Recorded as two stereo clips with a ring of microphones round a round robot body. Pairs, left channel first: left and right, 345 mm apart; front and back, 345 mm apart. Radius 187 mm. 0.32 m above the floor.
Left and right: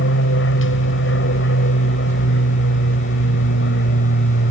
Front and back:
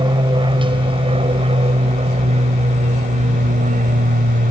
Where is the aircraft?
110° left; by 4.5 s 130° left.